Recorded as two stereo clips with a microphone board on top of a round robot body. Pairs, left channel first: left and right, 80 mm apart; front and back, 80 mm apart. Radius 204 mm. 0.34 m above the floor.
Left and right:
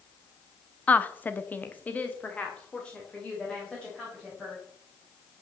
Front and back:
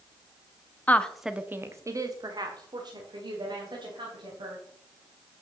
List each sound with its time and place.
0.9 s a woman speaking: 40° left, 1.0 m; by 4.6 s 170° left, 4 m